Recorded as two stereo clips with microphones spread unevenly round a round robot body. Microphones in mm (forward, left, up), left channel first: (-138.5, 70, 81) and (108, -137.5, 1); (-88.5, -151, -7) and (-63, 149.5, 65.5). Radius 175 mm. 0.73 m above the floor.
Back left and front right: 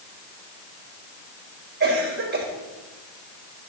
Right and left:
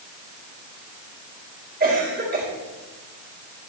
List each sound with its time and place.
1.8 s a cough: 15° left, 4 m